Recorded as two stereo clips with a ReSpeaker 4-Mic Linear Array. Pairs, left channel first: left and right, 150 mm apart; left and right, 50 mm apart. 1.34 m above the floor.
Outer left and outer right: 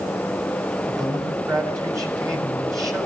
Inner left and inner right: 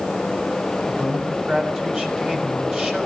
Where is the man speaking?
25° right (ahead or behind), 5.5 m.